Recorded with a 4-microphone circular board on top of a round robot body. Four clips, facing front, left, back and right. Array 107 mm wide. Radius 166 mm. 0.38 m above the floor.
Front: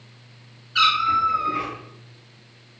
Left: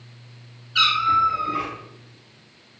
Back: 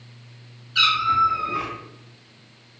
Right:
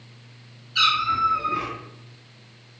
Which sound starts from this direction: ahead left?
A cat meowing, at 0.8 s.